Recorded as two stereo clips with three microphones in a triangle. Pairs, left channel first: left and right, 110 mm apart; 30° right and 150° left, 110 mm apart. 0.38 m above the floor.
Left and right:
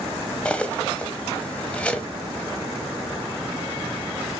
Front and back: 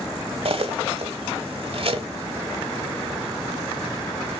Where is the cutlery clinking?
165° left, 1.2 m.